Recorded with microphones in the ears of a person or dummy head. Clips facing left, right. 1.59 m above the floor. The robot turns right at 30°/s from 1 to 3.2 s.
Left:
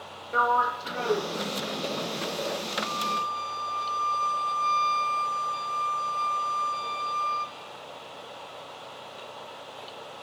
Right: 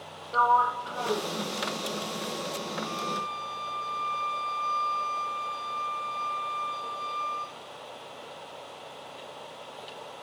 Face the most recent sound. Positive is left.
turn(degrees=45)  # may be behind; listen again after turning